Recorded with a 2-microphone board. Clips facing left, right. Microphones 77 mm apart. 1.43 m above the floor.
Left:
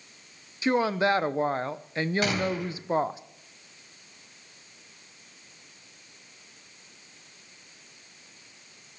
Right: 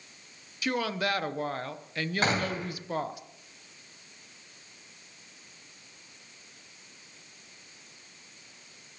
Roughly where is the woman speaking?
Left.